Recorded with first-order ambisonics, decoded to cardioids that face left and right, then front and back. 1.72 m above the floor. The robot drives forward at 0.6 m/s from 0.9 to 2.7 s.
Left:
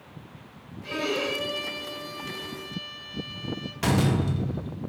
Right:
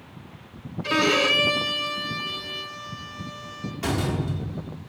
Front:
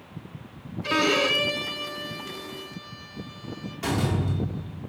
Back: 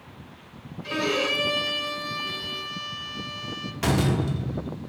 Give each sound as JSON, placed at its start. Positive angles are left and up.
{"t": 0.8, "sound": "a violin", "azimuth_deg": -55, "distance_m": 0.6}
{"t": 3.8, "sound": "a door slam", "azimuth_deg": 140, "distance_m": 0.8}